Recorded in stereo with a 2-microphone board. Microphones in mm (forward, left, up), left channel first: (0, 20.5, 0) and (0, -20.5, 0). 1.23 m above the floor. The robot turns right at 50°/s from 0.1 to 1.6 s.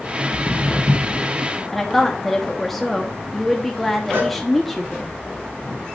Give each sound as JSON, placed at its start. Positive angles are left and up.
{"t": 0.3, "sound": "footsteps", "side_deg": 30, "distance_m": 2.0}
{"t": 1.7, "sound": "a woman speaking", "side_deg": 5, "distance_m": 1.0}
{"t": 4.1, "sound": "a cowbell", "side_deg": -75, "distance_m": 3.0}